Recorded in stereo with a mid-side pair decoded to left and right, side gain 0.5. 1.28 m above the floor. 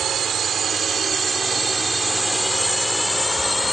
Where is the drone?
55° right; by 3.7 s 5° left.